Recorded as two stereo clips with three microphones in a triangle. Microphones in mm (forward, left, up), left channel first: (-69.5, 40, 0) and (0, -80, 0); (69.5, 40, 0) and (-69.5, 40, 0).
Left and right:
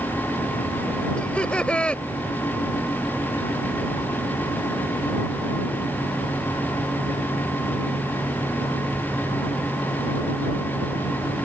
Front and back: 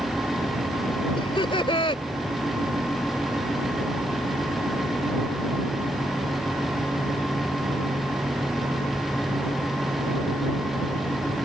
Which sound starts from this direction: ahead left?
Laughter, at 1.2 s.